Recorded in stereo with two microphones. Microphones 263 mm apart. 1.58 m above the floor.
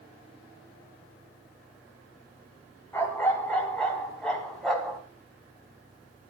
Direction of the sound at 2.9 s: 10° left (ahead or behind).